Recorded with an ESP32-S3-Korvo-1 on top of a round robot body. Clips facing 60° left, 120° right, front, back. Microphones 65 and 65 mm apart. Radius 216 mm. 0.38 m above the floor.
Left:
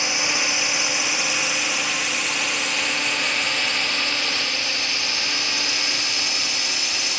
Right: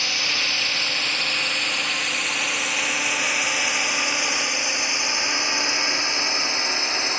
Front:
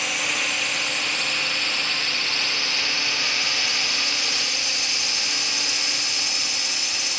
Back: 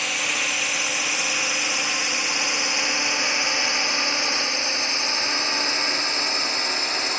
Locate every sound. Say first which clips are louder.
0.0 s a drone: left 2 dB, even; 90° left; by 7.2 s 160° right